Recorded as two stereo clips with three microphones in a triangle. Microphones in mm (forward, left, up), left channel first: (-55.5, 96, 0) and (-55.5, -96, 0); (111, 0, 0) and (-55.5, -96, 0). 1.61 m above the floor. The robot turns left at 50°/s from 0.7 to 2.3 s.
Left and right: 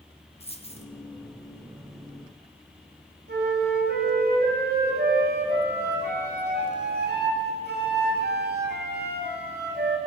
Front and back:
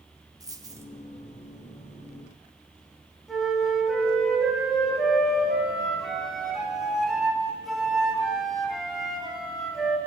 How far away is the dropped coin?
About 1.8 m.